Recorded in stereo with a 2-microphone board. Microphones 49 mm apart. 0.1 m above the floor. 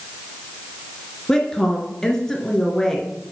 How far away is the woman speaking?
About 1.8 m.